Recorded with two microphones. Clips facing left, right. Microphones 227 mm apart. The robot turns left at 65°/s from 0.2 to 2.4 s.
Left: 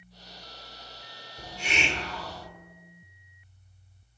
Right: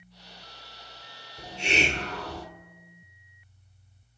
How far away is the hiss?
About 1.0 m.